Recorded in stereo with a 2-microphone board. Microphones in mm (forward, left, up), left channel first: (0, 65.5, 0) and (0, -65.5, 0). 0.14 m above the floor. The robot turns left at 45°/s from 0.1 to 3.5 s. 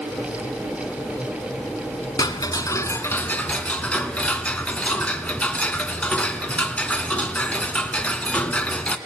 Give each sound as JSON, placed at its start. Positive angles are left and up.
{"t": 2.2, "sound": "ticking", "side_deg": 25, "distance_m": 1.4}